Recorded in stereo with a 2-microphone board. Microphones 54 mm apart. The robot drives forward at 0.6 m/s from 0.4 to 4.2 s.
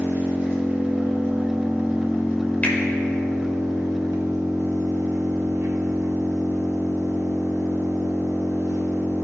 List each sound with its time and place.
0.0 s an engine running: 35° right (ahead or behind), 2.5 m; by 9.2 s 70° right (ahead or behind), 1.6 m
2.6 s a finger snap: 30° left (ahead or behind), 1.7 m